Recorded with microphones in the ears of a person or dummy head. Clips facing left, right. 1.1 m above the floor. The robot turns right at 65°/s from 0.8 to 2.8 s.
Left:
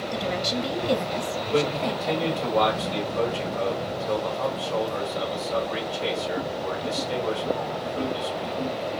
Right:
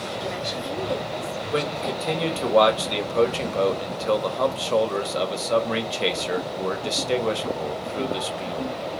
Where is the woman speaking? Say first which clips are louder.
Left 4 dB; 70° left, 1.6 m; by 2.5 s straight behind, 1.6 m.